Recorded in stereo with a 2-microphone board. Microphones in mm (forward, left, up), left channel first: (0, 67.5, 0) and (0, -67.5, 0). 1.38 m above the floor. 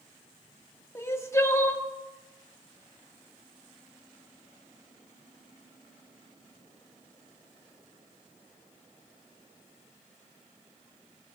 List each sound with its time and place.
0.9 s crying: 20° left (ahead or behind), 1.5 m